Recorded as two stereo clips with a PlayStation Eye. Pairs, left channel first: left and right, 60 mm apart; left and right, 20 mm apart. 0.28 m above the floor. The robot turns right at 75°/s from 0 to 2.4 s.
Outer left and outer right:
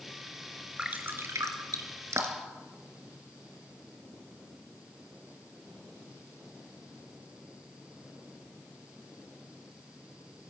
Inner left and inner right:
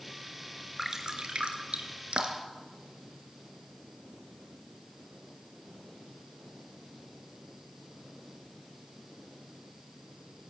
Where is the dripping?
15° right (ahead or behind), 2.5 m; by 2.6 s 40° right (ahead or behind), 2.5 m.